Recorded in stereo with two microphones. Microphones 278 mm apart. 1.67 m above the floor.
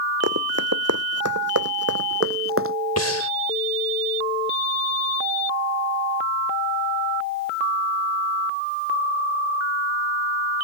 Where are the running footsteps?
65° right (ahead or behind); by 2.8 s 50° right (ahead or behind).